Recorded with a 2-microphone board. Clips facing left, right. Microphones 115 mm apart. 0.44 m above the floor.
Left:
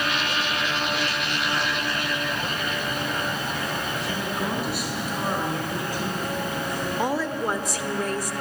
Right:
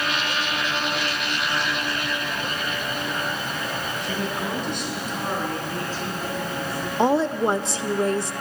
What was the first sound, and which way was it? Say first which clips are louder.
A woman speaking: even; centre (ahead or behind).